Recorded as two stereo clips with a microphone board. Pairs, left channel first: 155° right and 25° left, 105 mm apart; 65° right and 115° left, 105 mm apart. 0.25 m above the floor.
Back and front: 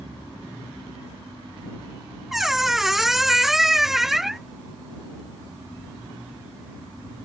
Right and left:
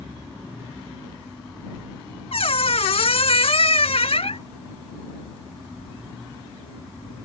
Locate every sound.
2.3 s a squeak: 65° right